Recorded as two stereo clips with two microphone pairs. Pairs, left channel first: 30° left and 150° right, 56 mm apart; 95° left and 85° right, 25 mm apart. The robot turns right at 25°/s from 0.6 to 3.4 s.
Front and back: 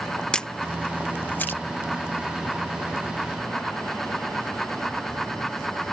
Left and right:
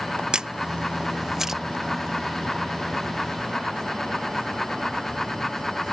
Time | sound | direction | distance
0.3 | a camera shutter | 45° right | ?